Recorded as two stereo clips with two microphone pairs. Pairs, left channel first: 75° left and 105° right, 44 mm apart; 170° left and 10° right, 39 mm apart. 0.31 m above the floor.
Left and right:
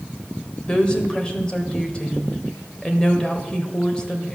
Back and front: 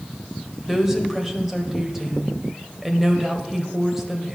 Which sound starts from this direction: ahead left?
A woman speaking, at 0.7 s.